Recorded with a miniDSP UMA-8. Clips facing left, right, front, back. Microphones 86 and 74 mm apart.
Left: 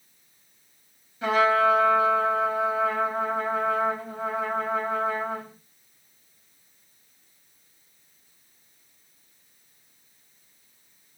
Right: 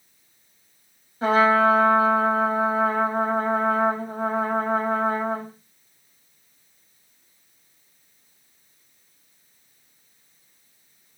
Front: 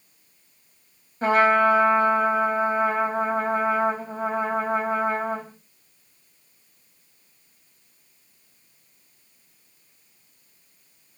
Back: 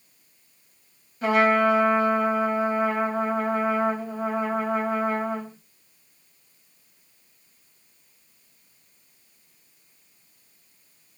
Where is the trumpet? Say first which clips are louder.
Right 3 dB, front 2 dB; 45° right, 1.2 m.